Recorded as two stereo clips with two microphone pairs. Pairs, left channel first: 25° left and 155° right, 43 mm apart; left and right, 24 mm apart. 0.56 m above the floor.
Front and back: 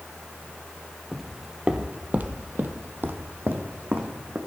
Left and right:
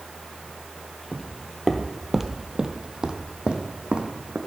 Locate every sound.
1.1 s footsteps: 110° left, 0.6 m; by 4.4 s 120° right, 1.6 m